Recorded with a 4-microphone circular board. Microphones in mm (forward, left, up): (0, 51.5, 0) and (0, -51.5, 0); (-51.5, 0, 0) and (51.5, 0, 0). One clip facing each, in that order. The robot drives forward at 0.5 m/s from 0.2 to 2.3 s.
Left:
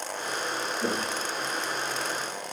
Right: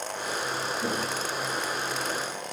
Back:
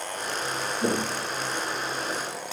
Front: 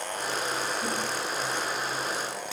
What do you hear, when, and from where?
0.8 s footsteps: 155° left, 0.9 m; by 2.4 s 165° right, 3.5 m